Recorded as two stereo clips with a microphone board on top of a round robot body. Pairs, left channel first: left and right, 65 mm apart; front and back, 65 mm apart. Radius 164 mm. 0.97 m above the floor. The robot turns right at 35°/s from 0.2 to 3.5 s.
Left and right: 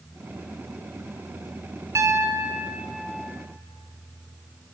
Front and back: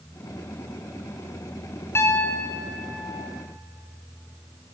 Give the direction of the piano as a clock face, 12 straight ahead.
2 o'clock.